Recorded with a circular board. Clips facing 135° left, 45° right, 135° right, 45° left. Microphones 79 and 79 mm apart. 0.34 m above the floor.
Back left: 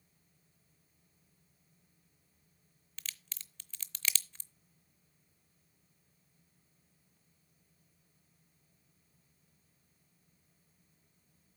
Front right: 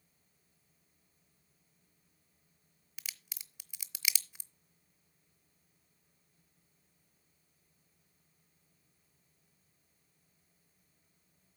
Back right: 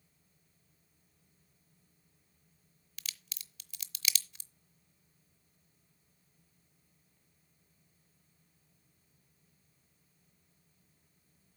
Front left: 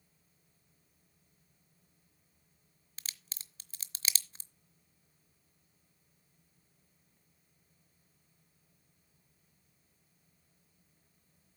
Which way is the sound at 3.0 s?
25° left.